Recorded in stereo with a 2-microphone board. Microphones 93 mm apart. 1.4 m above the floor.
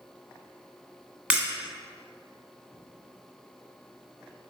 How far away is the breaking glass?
About 2.0 m.